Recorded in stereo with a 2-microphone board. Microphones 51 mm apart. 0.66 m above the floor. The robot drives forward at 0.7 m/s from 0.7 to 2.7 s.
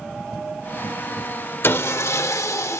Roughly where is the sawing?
Left.